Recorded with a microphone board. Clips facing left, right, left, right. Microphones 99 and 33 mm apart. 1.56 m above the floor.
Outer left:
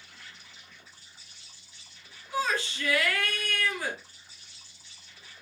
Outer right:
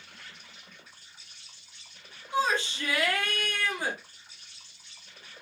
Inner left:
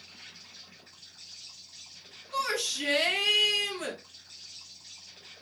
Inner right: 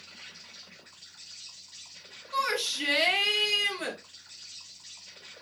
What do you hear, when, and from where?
0.0 s an insect: 55° right (ahead or behind), 1.2 m
2.3 s a shout: 25° right (ahead or behind), 1.1 m